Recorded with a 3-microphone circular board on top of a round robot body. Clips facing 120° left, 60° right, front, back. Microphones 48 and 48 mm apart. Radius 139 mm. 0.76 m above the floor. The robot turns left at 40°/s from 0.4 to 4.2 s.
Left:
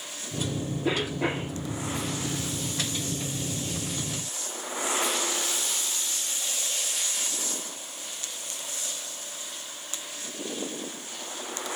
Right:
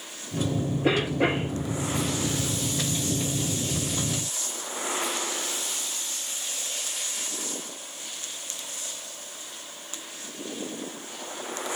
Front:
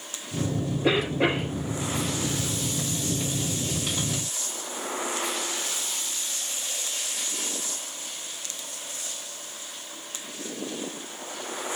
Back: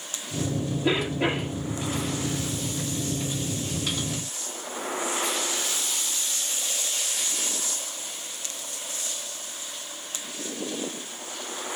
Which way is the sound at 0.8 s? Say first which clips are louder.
Right 4 dB, front 2 dB; 20° right.